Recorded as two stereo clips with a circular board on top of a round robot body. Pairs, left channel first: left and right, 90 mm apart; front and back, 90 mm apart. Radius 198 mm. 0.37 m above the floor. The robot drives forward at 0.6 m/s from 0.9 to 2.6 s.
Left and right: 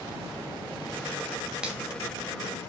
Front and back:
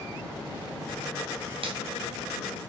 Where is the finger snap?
170° right, 3.5 m.